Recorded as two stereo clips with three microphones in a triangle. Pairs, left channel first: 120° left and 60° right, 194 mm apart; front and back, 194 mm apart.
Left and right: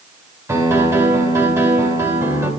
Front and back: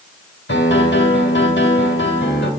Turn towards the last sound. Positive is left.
turn(degrees=15)